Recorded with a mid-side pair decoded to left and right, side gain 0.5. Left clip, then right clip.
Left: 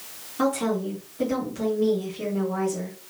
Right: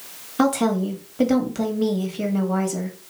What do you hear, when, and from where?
0.4 s a woman speaking: 55° right, 1.2 m